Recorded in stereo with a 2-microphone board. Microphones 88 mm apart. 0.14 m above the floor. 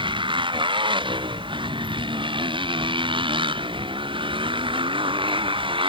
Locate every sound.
0.0 s a motorcycle: 70° right (ahead or behind); by 5.9 s 75° right (ahead or behind)